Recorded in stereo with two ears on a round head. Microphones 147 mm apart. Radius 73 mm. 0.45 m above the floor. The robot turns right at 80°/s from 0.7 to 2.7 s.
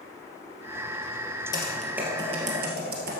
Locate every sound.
1.5 s typing on a keyboard: 25° left (ahead or behind), 2 m; by 3.2 s 70° right (ahead or behind), 2 m